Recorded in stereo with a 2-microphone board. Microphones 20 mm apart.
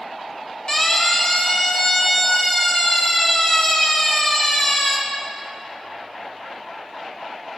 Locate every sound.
0.7 s a siren: 40° left (ahead or behind), 4.5 m; by 5.0 s 45° left (ahead or behind), 6.5 m